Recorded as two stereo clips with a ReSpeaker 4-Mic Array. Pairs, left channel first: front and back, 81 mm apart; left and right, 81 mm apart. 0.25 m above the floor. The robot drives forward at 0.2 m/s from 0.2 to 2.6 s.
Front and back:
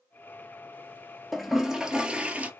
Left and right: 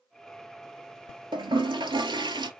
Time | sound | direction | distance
1.3 | a toilet flushing | 90° right | 0.7 m